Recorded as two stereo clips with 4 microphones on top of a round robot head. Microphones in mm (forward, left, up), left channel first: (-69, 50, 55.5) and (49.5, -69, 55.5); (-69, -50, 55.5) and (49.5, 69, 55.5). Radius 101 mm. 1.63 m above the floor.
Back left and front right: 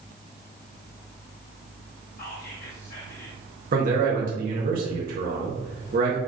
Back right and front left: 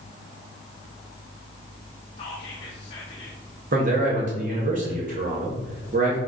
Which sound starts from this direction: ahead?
A man speaking, at 3.7 s.